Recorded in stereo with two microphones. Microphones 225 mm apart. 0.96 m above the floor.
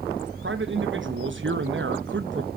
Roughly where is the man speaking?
Right.